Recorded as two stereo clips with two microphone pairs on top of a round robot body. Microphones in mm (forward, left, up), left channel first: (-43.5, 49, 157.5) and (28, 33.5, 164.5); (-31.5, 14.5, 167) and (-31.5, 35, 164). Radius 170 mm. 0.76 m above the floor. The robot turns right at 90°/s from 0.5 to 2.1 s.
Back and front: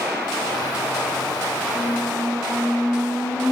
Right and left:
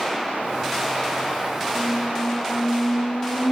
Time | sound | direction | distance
1.8 | a squeak | 130° right | 7 m